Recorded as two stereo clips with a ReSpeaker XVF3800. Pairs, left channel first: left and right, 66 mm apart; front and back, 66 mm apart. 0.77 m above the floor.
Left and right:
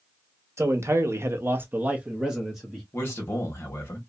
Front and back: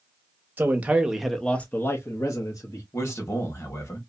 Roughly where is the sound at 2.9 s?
Ahead left.